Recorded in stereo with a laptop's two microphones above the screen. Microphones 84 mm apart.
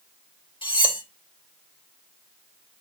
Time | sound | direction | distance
0.6 | cutlery clinking | 85° left | 2.0 m